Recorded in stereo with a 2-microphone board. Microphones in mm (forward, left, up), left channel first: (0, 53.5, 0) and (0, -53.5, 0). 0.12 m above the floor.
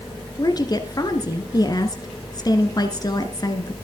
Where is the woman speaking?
40° left (ahead or behind), 1.8 m.